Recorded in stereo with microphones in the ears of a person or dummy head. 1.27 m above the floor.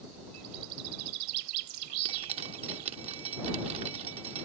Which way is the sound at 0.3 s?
80° right.